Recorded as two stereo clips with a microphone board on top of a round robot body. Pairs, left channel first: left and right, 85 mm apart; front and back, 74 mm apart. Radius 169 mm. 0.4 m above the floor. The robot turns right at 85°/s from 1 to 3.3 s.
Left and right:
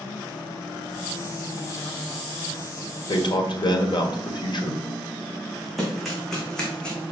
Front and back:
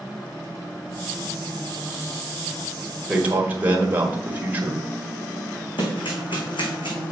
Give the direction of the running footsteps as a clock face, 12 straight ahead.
12 o'clock.